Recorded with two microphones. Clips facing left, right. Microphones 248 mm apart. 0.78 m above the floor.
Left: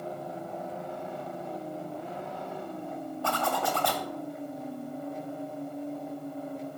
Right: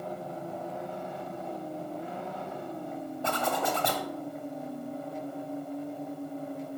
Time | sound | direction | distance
3.2 | a zipper | 20° right (ahead or behind) | 0.6 m